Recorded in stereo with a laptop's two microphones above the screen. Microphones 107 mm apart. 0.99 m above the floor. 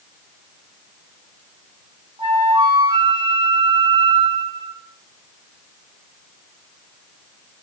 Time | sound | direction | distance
2.2 | a flute | 45° right (ahead or behind) | 0.7 m